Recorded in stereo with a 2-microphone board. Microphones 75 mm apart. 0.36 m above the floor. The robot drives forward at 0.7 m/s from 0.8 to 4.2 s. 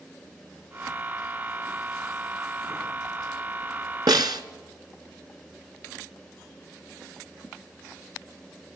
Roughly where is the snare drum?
Right.